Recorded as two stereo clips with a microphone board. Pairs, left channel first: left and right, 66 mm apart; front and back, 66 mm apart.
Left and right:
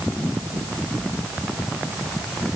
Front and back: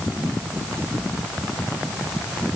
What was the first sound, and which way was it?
Only background noise.